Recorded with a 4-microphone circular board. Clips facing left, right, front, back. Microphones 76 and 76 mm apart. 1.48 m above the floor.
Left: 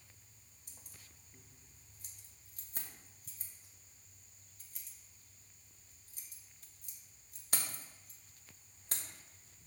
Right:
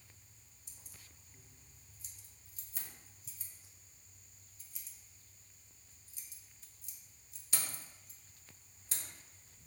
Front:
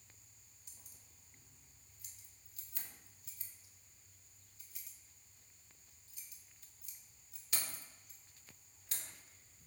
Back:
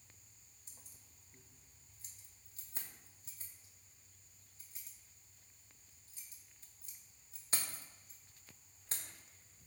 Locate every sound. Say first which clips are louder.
0.7 s keys jangling: even, back 2 dB; 125° left, 1.4 m